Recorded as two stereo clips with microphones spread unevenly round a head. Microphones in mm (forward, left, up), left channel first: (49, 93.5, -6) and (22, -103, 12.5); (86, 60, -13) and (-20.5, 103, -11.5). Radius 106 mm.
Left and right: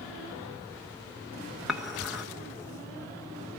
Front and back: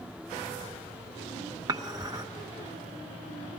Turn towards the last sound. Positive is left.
turn(degrees=180)